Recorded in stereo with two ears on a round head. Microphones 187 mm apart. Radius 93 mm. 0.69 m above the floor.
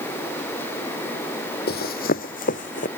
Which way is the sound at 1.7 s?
50° left (ahead or behind).